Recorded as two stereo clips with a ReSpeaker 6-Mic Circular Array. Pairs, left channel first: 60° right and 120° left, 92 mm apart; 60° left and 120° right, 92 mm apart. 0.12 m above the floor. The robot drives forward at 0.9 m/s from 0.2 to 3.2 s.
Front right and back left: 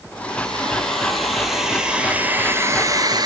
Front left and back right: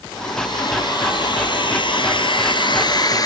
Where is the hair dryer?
20° left, 3 m; by 3.3 s 95° left, 1.2 m.